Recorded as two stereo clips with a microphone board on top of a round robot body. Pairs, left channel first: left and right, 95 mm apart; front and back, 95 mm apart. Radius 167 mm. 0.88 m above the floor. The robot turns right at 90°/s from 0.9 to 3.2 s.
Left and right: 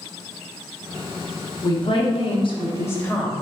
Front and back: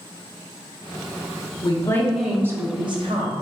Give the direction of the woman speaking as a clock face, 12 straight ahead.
11 o'clock.